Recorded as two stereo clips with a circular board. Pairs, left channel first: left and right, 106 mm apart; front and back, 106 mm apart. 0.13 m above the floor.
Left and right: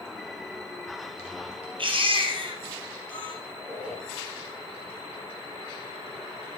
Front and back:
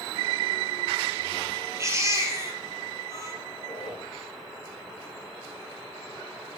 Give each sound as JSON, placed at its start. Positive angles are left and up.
{"t": 1.8, "sound": "a baby crying", "azimuth_deg": -120, "distance_m": 2.5}
{"t": 3.5, "sound": "a squeak", "azimuth_deg": -45, "distance_m": 5.5}